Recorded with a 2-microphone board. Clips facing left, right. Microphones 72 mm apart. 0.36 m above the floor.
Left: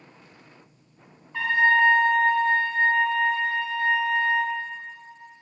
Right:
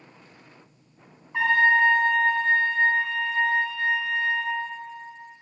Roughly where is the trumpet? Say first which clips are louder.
Right 1 dB; centre.